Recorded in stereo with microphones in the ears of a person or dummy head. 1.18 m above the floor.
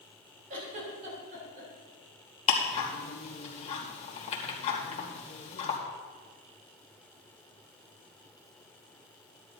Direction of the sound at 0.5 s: 40° right (ahead or behind).